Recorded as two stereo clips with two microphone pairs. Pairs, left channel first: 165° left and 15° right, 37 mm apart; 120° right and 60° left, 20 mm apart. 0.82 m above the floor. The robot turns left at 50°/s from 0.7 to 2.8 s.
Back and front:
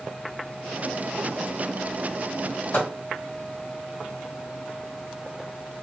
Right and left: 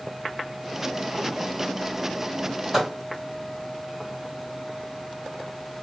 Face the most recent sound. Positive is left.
turn(degrees=145)